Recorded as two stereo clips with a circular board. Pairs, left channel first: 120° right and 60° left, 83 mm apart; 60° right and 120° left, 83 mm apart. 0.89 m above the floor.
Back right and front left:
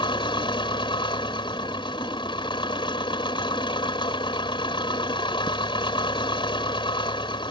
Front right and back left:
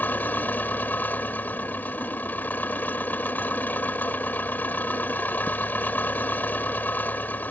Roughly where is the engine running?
Behind right.